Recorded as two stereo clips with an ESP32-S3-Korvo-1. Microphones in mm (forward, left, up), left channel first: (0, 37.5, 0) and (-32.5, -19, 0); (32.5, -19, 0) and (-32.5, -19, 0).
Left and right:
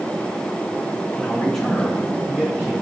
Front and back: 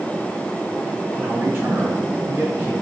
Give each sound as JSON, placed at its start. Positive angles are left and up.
{"t": 1.1, "sound": "a man speaking", "azimuth_deg": 125, "distance_m": 2.0}